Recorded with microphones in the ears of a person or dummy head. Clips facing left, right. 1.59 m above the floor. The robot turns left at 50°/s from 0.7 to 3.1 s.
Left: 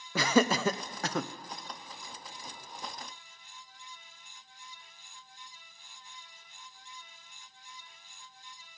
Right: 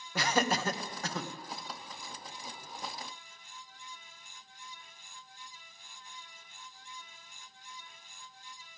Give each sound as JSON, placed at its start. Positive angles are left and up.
{"t": 0.1, "sound": "laughter", "side_deg": 75, "distance_m": 0.6}